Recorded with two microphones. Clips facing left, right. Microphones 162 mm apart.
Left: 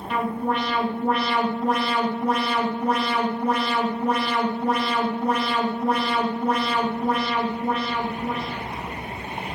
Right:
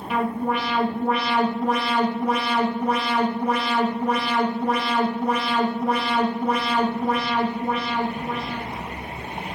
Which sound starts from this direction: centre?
An alarm, at 0.1 s.